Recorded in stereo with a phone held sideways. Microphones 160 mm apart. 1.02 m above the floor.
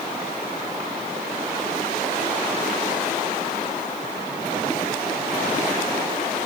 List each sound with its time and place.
Only background noise.